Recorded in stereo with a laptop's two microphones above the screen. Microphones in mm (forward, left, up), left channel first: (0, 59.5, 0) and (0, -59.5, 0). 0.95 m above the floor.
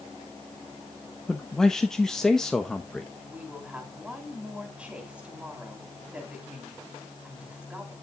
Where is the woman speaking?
10° right (ahead or behind), 2.5 m.